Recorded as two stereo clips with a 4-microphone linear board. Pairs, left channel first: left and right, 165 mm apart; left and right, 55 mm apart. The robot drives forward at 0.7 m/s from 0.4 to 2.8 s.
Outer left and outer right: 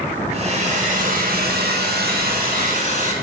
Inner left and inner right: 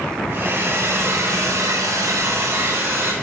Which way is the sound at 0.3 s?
40° right (ahead or behind).